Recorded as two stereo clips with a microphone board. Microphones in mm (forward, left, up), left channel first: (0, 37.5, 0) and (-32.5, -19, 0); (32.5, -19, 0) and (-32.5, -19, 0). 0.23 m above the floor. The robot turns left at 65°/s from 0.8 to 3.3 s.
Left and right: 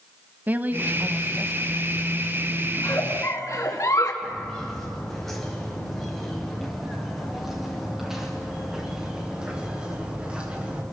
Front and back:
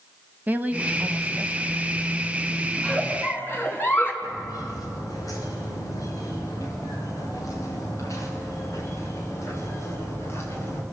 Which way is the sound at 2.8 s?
80° left.